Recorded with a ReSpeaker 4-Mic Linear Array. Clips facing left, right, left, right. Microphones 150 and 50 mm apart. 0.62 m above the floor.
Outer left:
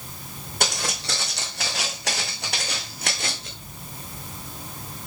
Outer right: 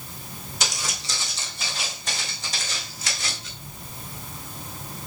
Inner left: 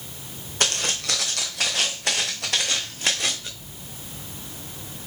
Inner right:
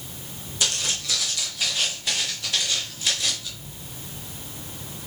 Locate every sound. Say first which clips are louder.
0.6 s footsteps: outer left 5 dB, inner left 3 dB; 55° left (ahead or behind), 2 m; by 3.5 s 50° left (ahead or behind), 2.5 m